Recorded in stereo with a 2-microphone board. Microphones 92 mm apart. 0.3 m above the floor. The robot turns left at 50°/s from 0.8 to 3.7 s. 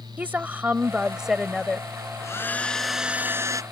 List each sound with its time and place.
0.2 s a woman speaking: 150° right; by 1.9 s 160° left
2.2 s a hair dryer: 35° left; by 3.6 s 35° right